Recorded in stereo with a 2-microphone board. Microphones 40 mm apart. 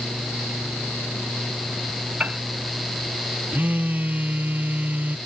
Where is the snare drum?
No snare drum in this recording.